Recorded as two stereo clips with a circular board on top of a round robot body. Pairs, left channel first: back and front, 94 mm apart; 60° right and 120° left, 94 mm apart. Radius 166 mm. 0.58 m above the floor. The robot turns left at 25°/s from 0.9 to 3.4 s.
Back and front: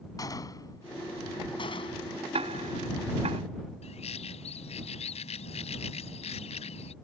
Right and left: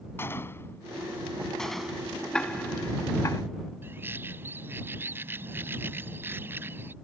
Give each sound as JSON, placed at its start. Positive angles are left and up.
{"t": 0.2, "sound": "a gunshot", "azimuth_deg": -125}
{"t": 2.3, "sound": "ticking", "azimuth_deg": 25}
{"t": 3.8, "sound": "a bird", "azimuth_deg": -170}